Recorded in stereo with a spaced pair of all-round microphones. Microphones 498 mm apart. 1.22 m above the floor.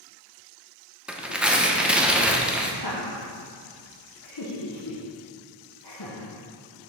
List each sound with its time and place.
1.1 s tearing paper: centre (ahead or behind), 0.5 m
2.8 s laughter: 50° left (ahead or behind), 0.9 m